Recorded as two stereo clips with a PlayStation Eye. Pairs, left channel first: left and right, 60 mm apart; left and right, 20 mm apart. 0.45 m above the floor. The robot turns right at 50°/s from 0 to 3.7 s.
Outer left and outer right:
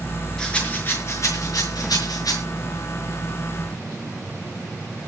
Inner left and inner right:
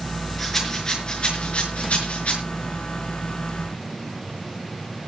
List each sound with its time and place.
0.4 s a rattle: 10° left (ahead or behind), 5 m; by 2.4 s 70° left (ahead or behind), 5 m